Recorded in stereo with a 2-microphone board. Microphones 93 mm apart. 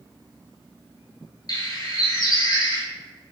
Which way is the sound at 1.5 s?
45° left (ahead or behind).